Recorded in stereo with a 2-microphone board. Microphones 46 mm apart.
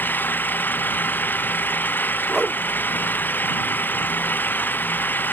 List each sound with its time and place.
0.0 s an engine running: 50° left (ahead or behind)
2.3 s a whoosh: 10° right (ahead or behind)